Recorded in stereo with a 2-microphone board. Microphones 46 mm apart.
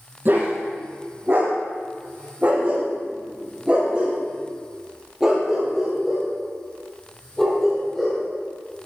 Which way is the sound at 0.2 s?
45° right (ahead or behind).